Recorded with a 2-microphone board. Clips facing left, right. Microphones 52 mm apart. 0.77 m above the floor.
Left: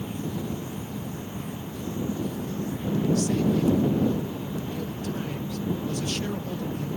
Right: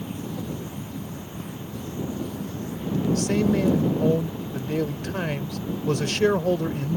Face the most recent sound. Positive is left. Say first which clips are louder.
# right 4 dB
turn(degrees=-75)  # may be behind; listen again after turning